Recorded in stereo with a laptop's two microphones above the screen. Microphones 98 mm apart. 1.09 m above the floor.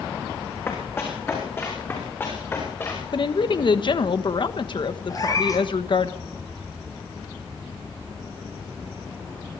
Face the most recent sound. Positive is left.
turn(degrees=35)  # may be behind; listen again after turning